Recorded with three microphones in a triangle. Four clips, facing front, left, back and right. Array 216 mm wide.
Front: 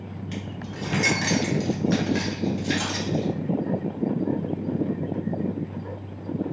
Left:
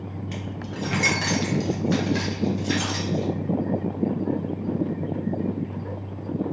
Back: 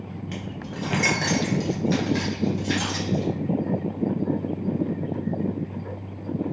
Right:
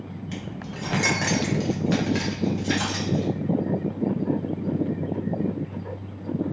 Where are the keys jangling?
175° left, 1.2 m; by 3.3 s 50° right, 2.5 m.